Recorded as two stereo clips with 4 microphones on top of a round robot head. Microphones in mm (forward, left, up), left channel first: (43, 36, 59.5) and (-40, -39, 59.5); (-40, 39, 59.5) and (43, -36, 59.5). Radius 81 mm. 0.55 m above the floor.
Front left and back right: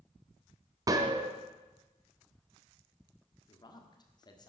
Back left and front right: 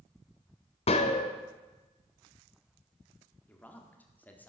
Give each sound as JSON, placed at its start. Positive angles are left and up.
{"t": 0.9, "sound": "a gunshot", "azimuth_deg": 165, "distance_m": 1.2}
{"t": 3.5, "sound": "a man speaking", "azimuth_deg": 70, "distance_m": 1.5}